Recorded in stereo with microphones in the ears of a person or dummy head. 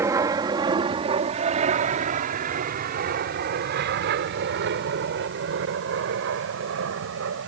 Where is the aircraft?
20° right (ahead or behind); by 7.5 s 70° right (ahead or behind).